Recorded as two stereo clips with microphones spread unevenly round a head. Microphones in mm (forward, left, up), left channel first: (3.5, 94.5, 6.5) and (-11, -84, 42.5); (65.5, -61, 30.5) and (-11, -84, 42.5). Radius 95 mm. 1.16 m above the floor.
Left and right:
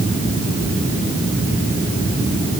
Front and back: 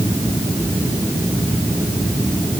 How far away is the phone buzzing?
No phone buzzing in this recording.